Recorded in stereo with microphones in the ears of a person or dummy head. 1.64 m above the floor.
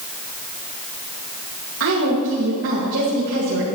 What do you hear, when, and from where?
1.8 s a woman speaking: 80° right, 2 m